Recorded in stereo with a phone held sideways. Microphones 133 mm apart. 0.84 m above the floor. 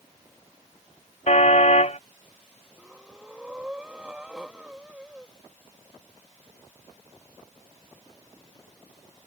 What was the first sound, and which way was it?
A car horn, 60° left (ahead or behind).